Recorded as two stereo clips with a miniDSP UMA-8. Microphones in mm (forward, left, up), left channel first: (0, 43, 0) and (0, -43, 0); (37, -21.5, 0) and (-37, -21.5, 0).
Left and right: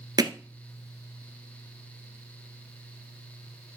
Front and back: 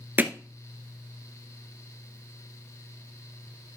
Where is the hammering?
120° right, 0.9 m.